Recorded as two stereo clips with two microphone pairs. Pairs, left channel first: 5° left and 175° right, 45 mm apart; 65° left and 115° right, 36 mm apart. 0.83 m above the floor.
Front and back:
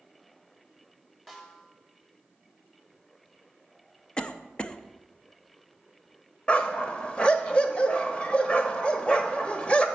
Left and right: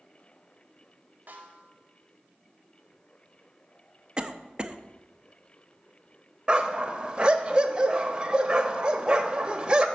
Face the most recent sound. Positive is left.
turn(degrees=-55)